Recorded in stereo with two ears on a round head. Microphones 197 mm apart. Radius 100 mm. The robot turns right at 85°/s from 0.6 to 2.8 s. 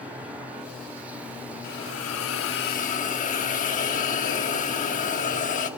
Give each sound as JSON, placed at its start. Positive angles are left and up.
{"t": 1.6, "sound": "a hiss", "azimuth_deg": 45, "distance_m": 1.2}